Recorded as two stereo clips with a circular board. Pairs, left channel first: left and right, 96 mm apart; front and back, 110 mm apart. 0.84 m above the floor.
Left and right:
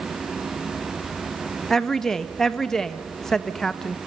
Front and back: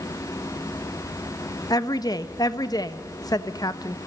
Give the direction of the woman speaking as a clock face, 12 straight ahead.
12 o'clock.